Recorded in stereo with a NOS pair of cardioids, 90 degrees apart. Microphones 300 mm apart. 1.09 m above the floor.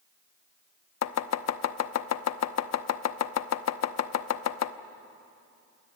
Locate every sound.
1.0 s chopping: 60° left, 1.0 m